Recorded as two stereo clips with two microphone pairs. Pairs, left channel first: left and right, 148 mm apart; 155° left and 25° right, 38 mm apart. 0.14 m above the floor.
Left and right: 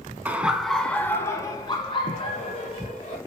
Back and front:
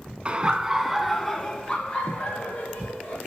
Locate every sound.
0.2 s laughter: 25° right, 1.3 m; by 3.2 s 130° left, 2 m